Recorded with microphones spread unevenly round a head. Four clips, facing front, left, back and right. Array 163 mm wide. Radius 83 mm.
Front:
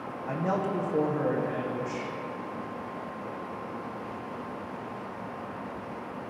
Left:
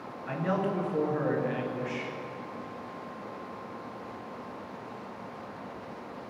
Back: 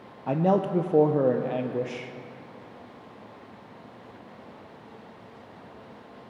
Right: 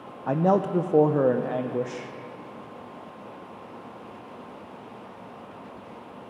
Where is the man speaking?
125° right, 0.8 m.